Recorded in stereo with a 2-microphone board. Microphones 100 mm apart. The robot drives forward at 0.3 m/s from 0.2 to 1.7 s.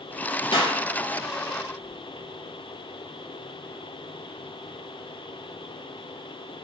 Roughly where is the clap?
Left.